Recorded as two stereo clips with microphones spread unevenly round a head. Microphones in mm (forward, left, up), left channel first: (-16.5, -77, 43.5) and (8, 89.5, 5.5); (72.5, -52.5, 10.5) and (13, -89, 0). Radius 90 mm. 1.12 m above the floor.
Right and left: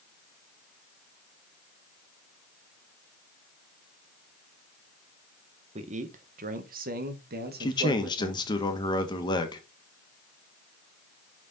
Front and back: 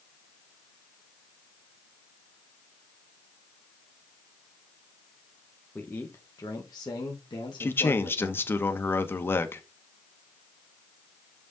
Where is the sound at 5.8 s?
110° left, 1.2 m; by 8.5 s 65° left, 2.5 m.